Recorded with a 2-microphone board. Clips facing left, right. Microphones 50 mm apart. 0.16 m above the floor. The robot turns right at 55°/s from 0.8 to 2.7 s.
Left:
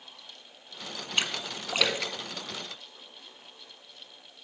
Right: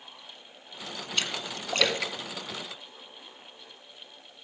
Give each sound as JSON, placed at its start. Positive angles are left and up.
{"t": 1.2, "sound": "a splash", "side_deg": 25, "distance_m": 1.4}